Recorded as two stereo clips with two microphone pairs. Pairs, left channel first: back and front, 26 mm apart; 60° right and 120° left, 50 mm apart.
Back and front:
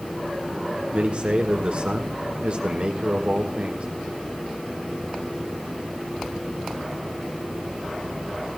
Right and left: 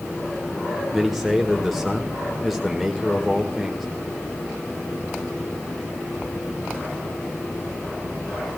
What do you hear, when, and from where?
0.9 s a man speaking: 30° left, 1.9 m